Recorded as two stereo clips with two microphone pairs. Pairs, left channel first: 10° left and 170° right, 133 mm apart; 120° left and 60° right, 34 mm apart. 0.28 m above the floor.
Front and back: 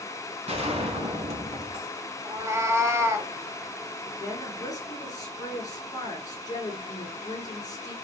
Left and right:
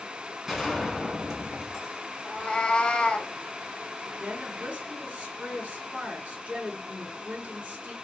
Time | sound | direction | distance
0.5 | a gunshot | 140° right | 1.5 m
2.2 | a cat meowing | 145° left | 0.7 m
4.2 | a woman speaking | 45° right | 3 m